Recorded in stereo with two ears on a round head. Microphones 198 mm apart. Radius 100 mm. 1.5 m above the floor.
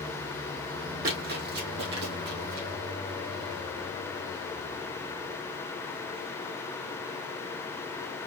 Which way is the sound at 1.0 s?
45° right (ahead or behind).